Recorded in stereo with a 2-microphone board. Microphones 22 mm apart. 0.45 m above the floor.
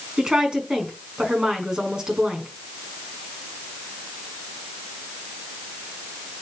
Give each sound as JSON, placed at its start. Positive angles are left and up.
{"t": 0.2, "sound": "a woman speaking", "side_deg": -30, "distance_m": 4.5}